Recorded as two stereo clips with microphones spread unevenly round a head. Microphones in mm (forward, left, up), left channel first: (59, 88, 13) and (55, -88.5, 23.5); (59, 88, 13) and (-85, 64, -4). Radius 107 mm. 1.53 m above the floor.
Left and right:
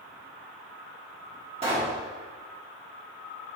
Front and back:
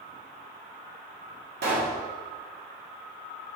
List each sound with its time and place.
1.6 s a pop: 150° right, 1.7 m